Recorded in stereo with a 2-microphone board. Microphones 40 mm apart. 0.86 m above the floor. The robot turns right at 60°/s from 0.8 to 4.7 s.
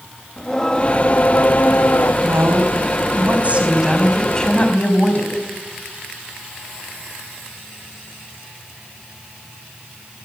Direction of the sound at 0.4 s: 20° left.